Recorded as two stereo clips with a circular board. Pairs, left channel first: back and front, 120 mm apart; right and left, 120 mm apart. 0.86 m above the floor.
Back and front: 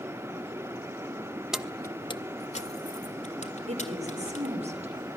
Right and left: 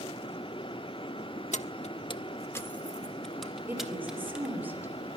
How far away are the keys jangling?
About 1.1 m.